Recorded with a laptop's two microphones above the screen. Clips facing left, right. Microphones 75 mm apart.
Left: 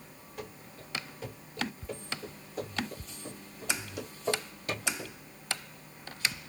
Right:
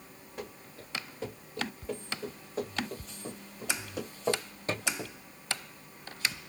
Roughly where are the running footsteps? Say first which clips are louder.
Right 1 dB; right.